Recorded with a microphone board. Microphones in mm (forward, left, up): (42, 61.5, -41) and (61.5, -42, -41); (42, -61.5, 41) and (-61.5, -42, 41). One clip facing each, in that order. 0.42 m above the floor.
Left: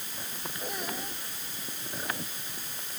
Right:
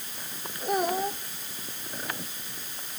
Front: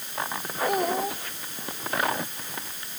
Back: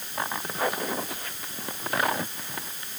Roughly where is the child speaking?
Ahead right.